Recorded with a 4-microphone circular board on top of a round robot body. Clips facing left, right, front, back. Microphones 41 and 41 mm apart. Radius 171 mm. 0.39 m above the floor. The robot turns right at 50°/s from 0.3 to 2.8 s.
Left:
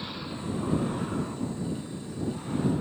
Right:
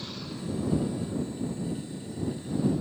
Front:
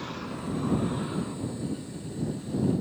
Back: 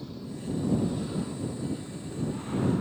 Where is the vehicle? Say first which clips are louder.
Left 2 dB, front 3 dB; 25° left; by 2.8 s 150° left.